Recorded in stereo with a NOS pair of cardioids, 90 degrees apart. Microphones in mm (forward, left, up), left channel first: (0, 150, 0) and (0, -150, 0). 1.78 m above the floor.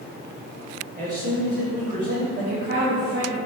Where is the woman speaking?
35° right, 1.2 m.